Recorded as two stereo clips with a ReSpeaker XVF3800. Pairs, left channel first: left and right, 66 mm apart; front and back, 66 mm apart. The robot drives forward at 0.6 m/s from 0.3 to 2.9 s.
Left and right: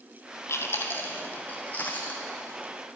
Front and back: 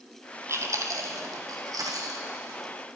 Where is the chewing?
135° left, 1.0 m; by 2.6 s 160° left, 2 m.